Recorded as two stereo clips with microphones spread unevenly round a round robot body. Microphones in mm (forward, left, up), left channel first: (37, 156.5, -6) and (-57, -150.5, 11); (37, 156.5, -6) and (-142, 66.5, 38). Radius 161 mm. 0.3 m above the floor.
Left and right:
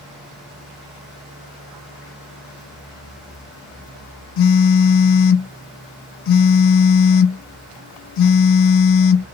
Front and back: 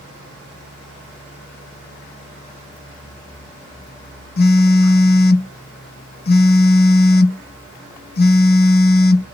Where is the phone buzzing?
55° left, 0.5 m.